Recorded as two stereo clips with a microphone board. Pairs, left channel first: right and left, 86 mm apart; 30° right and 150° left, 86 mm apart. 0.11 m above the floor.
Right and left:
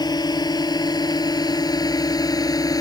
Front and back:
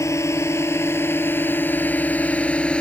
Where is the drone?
75° right; by 2.8 s 105° right.